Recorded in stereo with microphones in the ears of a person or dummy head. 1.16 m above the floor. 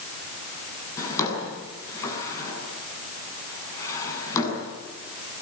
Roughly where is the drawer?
Centre.